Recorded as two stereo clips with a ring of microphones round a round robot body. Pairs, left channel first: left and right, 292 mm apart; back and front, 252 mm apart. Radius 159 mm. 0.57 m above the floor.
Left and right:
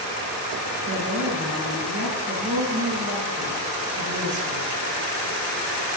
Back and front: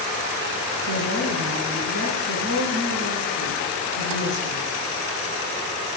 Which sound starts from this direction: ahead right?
A woman speaking, at 0.9 s.